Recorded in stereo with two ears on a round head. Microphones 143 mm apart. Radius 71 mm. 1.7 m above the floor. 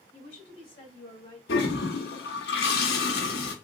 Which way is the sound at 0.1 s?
40° left (ahead or behind).